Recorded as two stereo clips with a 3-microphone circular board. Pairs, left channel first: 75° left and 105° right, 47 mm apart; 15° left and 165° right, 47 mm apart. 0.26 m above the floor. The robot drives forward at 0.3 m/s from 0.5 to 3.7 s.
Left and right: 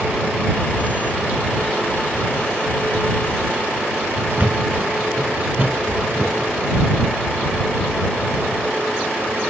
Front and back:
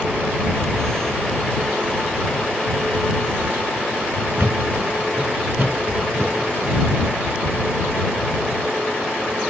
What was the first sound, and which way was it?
A thud, 155° right.